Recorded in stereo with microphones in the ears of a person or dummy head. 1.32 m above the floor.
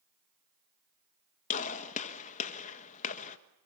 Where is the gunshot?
45° left (ahead or behind), 1.6 m.